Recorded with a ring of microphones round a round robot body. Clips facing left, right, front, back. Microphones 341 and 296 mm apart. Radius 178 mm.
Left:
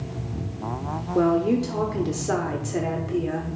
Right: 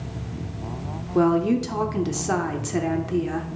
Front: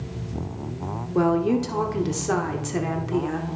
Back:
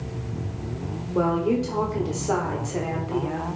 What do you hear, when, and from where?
1.1 s a woman speaking: 35° right, 0.8 m